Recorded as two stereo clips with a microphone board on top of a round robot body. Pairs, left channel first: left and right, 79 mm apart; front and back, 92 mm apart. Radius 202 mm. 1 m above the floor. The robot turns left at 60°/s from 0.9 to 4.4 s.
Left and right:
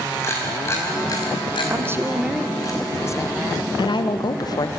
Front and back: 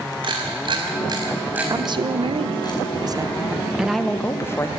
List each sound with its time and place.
0.2 s a camera shutter: 150° left, 4.5 m; by 2.7 s 40° left, 4.5 m
1.7 s a woman speaking: 135° right, 1.4 m; by 4.7 s 60° left, 1.4 m